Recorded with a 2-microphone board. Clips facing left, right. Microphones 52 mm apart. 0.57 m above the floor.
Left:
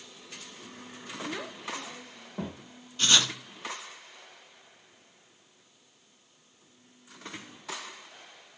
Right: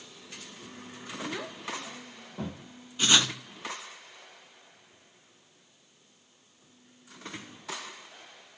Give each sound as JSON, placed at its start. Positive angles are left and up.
{"t": 1.3, "sound": "a child speaking", "side_deg": 0, "distance_m": 0.7}
{"t": 3.0, "sound": "writing", "side_deg": -10, "distance_m": 1.8}